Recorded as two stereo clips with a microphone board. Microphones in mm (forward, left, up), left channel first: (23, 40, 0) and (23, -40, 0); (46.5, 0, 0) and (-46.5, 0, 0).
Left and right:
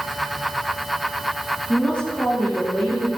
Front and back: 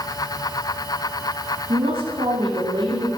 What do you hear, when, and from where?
1.7 s a woman speaking: 165° left, 6.5 m